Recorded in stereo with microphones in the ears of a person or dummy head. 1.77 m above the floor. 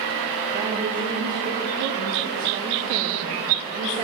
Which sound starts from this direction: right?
A woman speaking, at 0.5 s.